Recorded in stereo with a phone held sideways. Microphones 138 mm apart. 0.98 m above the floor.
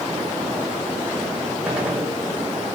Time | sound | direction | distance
1.6 | a gunshot | 10° right (ahead or behind) | 3 m